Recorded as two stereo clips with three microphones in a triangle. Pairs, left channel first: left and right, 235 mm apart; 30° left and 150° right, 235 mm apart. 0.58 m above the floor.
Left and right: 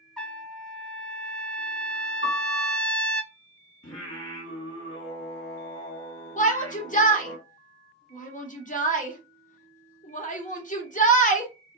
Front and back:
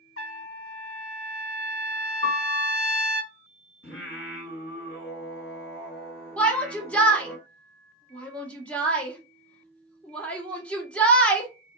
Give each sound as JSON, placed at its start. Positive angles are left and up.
{"t": 0.2, "sound": "a trumpet", "azimuth_deg": 5, "distance_m": 0.5}
{"t": 2.2, "sound": "a piano", "azimuth_deg": -25, "distance_m": 1.1}
{"t": 3.8, "sound": "singing", "azimuth_deg": 65, "distance_m": 1.9}
{"t": 6.4, "sound": "a shout", "azimuth_deg": 110, "distance_m": 0.8}